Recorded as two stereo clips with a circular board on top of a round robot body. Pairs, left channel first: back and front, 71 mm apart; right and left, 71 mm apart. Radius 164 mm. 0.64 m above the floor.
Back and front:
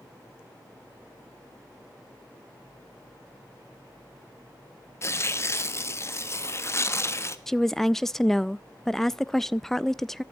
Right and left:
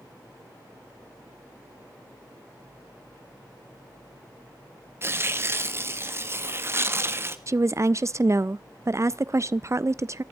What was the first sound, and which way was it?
Tearing paper, 140° left.